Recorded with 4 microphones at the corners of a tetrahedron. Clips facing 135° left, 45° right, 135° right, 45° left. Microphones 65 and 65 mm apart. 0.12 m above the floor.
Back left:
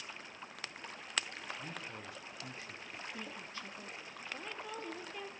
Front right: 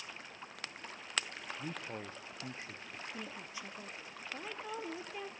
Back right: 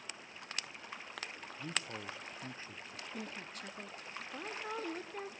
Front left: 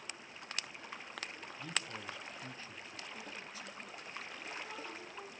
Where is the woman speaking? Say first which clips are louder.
Even, back right 2 dB; 120° right, 1.9 m.